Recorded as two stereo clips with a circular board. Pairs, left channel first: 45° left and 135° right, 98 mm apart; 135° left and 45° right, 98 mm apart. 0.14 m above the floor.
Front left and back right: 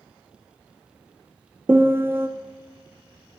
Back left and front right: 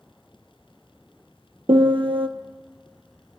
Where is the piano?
70° right, 0.6 m.